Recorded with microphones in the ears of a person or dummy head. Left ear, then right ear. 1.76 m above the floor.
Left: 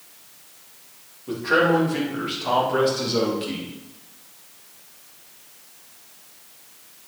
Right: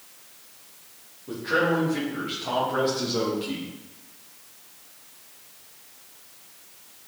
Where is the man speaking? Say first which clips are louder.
Left 5 dB; 30° left (ahead or behind), 3.5 m; by 3.7 s 10° left (ahead or behind), 3 m.